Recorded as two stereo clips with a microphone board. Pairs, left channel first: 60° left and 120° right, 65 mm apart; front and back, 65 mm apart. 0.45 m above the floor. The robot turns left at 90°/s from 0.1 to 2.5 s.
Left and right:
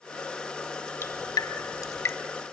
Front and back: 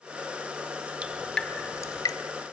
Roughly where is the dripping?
Left.